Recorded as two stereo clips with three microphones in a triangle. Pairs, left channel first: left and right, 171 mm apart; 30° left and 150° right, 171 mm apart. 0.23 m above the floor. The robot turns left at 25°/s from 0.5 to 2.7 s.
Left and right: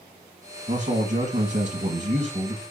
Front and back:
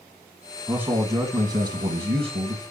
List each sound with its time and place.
0.7 s a man speaking: 70° right, 1.4 m; by 2.6 s 120° right, 1.4 m